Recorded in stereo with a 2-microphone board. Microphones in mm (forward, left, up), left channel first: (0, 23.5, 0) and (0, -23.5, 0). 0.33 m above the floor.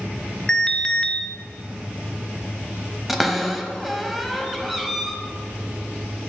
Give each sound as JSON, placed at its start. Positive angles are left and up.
{"t": 0.5, "sound": "an alarm", "side_deg": 15, "distance_m": 0.6}
{"t": 3.1, "sound": "a cupboard door", "side_deg": -5, "distance_m": 0.8}